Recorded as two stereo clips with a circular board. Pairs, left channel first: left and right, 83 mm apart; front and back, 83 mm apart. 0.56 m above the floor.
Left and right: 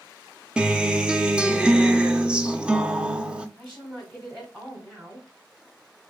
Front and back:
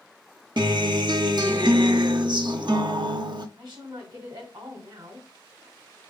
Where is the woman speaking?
175° right, 3 m.